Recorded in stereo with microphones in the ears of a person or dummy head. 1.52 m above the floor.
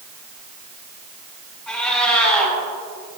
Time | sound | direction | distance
1.7 | a cat meowing | 5° left (ahead or behind) | 3.5 m